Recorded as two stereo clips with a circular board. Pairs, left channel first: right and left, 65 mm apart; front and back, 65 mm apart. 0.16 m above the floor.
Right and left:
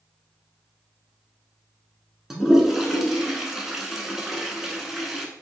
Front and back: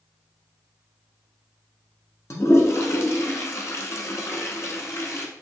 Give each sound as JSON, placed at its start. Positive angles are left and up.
{"t": 2.3, "sound": "a toilet flushing", "azimuth_deg": 10, "distance_m": 1.0}